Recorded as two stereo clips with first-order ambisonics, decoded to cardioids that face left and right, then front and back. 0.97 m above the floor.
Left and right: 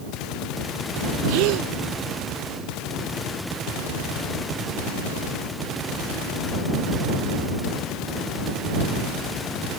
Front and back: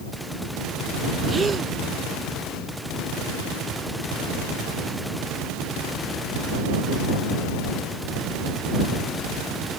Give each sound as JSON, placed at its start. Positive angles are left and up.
{"t": 1.3, "sound": "a gasp", "azimuth_deg": -105}